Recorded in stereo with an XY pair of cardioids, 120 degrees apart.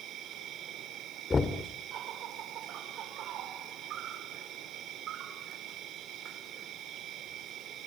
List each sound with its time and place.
0.0 s an insect: 65° right, 3 m
1.3 s knocking: 30° left, 2 m